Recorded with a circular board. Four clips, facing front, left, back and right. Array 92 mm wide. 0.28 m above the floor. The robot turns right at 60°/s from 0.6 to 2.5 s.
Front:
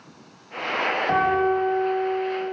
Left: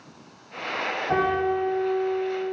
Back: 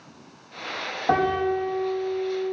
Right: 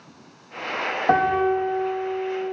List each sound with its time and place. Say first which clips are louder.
1.1 s a piano: right 4 dB, even; 110° right, 4.5 m; by 2.5 s 25° right, 4.5 m